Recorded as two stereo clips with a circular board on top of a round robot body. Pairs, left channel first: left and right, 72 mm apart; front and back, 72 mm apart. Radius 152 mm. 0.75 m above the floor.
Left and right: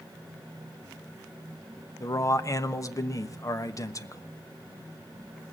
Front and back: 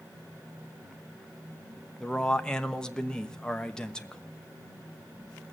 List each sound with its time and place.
2.0 s a man speaking: 75° left, 1.3 m